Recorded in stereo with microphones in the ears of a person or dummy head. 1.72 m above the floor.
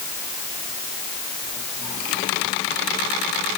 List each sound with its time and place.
Only background noise.